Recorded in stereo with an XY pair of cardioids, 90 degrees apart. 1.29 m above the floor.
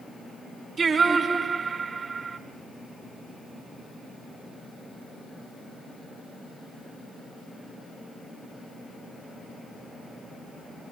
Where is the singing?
50° right, 3.5 m.